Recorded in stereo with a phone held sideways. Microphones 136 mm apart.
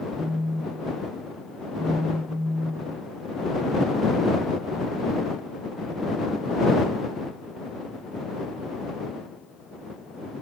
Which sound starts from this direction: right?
A phone buzzing, at 0.2 s.